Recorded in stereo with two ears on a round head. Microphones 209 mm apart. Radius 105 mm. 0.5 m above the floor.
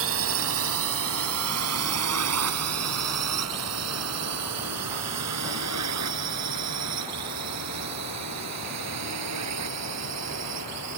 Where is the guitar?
I don't hear a guitar.